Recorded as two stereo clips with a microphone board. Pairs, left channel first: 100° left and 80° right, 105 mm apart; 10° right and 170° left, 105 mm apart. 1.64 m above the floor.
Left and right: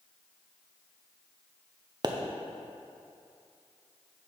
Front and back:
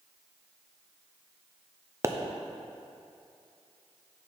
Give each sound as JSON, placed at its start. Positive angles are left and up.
{"t": 2.0, "sound": "a pop", "azimuth_deg": -125, "distance_m": 0.5}